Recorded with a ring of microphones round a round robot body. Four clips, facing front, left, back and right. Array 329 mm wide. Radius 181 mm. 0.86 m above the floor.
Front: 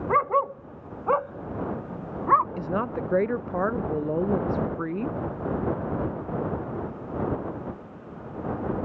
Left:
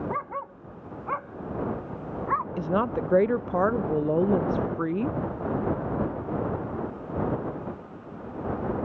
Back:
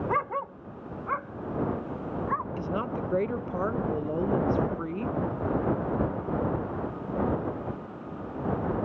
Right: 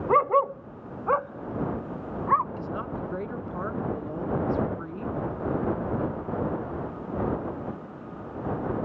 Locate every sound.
0.1 s a dog barking: 75° right; by 2.5 s 5° right
2.6 s a woman speaking: 70° left